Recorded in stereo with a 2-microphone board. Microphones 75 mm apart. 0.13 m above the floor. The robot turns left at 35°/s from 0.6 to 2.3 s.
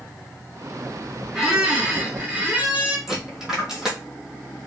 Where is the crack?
No crack in this recording.